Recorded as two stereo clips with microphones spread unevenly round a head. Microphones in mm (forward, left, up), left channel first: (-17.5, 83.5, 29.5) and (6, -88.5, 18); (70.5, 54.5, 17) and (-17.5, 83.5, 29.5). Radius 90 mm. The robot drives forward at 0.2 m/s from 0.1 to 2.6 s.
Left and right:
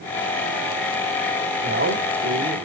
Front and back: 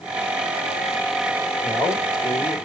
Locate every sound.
1.6 s a man speaking: 100° right, 3 m; by 2.5 s 105° right, 3 m